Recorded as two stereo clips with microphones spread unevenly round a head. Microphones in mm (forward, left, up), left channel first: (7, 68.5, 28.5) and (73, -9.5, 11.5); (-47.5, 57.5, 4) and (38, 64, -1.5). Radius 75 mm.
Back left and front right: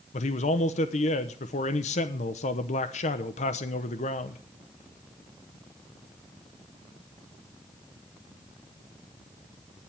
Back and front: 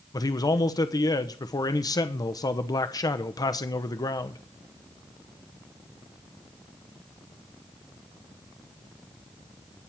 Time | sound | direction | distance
0.1 | a man speaking | 145° left | 1.0 m